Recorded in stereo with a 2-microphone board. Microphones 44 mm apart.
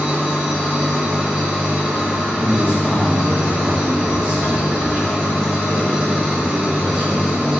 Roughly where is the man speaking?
Right.